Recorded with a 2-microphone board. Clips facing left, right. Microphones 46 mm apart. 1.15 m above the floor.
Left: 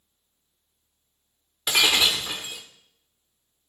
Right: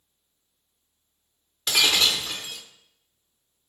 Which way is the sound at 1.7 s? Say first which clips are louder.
Left 1 dB; 15° left (ahead or behind).